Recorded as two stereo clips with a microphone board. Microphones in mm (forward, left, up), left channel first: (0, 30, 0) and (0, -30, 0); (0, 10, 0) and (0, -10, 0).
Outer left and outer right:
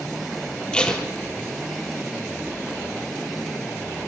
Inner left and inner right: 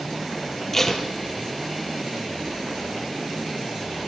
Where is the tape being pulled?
15° left (ahead or behind), 4 m.